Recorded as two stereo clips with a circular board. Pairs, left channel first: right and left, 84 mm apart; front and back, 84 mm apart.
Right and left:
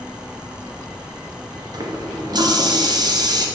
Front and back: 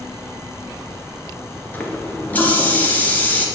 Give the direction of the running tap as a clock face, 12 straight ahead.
10 o'clock.